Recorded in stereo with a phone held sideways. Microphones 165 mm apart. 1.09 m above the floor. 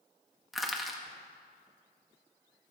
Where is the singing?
I don't hear singing.